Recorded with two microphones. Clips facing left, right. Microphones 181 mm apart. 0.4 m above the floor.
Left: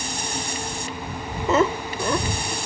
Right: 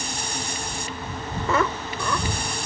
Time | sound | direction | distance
1.5 | laughter | 20° left (ahead or behind) | ?